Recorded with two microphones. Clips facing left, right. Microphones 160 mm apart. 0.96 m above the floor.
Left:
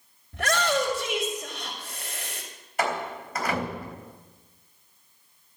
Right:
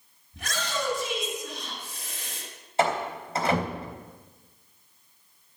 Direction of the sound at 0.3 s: 75° left (ahead or behind).